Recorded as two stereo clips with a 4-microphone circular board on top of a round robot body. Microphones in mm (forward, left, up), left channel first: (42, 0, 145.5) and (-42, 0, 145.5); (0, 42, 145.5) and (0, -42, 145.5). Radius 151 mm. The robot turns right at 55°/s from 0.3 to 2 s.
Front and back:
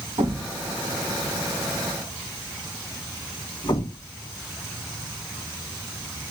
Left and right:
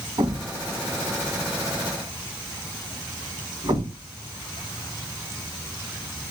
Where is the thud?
135° right, 1.5 m; by 4.1 s 40° right, 1.5 m.